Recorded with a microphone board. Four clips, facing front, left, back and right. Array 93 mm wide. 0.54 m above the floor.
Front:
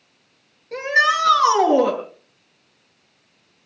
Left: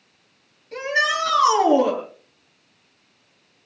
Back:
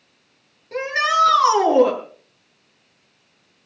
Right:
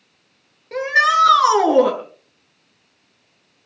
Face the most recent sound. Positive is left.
turn(degrees=-90)